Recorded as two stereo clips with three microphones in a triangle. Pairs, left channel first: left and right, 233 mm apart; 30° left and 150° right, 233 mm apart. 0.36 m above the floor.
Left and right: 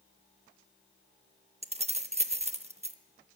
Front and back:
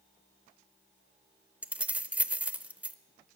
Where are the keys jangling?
70° right, 0.5 m.